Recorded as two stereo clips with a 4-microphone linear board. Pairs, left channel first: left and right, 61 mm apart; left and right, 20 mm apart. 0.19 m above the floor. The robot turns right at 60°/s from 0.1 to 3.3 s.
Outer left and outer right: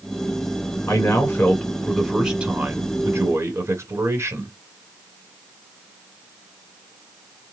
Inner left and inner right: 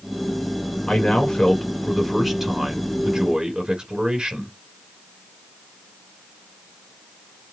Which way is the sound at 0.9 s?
115° left.